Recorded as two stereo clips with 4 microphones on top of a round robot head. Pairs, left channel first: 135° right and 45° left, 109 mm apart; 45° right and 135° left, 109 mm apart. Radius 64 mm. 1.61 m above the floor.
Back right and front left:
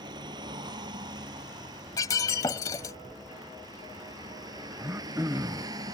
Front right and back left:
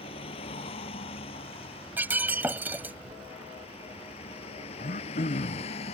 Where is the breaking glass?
165° right.